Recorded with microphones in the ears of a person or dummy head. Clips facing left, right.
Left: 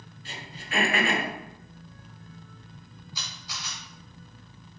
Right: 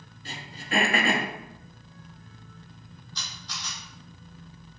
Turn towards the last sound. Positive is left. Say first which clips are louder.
# even
turn(degrees=15)  # may be behind; listen again after turning